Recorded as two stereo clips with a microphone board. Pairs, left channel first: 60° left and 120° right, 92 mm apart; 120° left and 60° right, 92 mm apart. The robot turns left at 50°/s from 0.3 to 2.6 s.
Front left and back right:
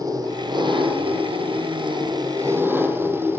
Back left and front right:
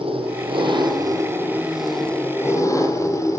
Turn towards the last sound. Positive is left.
turn(degrees=175)